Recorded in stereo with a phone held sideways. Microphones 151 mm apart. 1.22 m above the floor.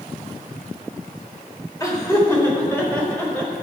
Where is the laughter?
20° left (ahead or behind), 3.5 m; by 3.6 s 5° left (ahead or behind), 5.5 m.